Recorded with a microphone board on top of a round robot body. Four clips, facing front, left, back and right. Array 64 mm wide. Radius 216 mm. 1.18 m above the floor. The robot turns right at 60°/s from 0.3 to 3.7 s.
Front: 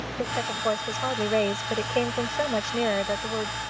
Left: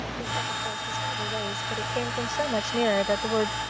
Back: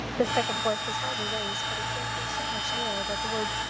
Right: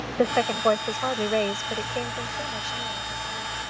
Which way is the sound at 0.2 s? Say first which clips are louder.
Right 11 dB, back 2 dB; 105° right.